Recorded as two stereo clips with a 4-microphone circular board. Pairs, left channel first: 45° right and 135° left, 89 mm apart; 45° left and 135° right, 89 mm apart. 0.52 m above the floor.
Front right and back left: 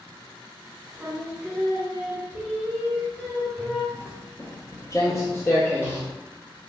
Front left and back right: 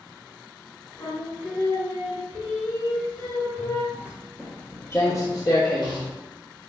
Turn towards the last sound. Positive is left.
turn(degrees=20)